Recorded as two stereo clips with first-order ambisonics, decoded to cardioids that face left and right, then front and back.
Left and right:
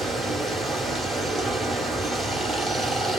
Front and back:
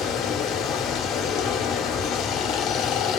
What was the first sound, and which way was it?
Running water, 5° left.